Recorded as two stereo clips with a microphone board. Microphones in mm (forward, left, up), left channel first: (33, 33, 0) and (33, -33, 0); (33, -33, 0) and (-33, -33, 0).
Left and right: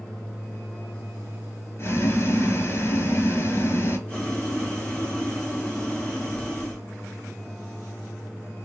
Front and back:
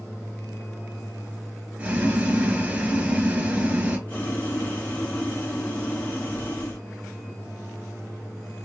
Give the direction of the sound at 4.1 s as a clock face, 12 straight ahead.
11 o'clock.